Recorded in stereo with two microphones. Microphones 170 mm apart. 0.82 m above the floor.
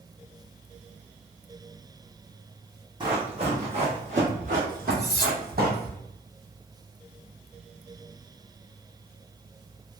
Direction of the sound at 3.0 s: 30° right (ahead or behind).